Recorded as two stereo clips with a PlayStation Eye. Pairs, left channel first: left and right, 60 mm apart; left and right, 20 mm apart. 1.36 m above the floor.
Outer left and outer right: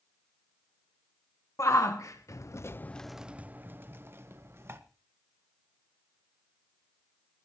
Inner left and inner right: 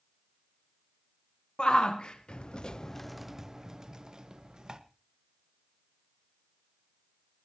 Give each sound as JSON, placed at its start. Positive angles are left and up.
{"t": 1.6, "sound": "a shout", "side_deg": 55, "distance_m": 1.5}